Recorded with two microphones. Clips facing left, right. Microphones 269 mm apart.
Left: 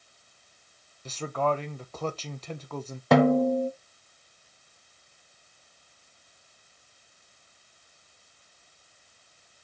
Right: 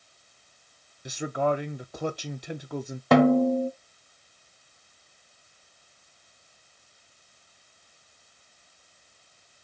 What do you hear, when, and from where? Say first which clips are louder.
1.1 s a man speaking: right 2 dB; 15° right (ahead or behind), 0.5 m
3.1 s a snare drum: right 1 dB; centre (ahead or behind), 0.7 m